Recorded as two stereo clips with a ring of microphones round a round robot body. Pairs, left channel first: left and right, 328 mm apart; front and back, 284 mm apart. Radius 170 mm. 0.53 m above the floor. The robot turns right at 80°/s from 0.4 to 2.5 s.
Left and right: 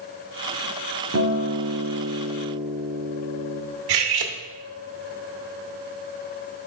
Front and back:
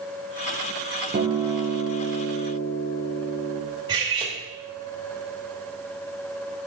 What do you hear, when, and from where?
1.1 s a guitar: 130° right, 1.2 m; by 3.6 s 20° right, 1.2 m
3.9 s cutlery clinking: 100° right, 0.8 m